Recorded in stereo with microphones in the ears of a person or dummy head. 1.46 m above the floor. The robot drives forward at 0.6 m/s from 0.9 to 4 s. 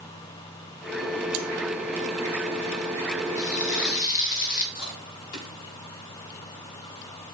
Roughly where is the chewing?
Left.